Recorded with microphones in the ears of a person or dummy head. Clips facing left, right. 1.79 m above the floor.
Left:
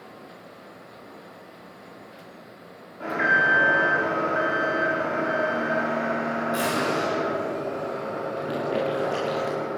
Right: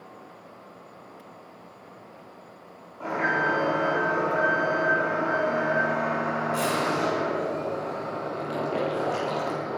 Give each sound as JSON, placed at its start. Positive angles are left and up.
{"t": 3.0, "sound": "an alarm", "side_deg": 15, "distance_m": 8.0}